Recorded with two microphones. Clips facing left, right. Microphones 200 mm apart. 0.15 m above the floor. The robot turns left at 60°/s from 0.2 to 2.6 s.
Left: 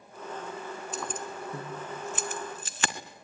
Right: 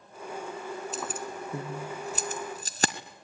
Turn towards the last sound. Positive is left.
turn(degrees=-35)  # may be behind; listen again after turning